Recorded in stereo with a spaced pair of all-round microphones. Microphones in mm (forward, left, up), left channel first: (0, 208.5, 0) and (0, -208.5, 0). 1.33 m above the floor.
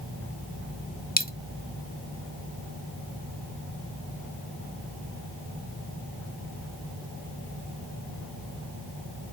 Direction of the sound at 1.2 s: 20° left (ahead or behind).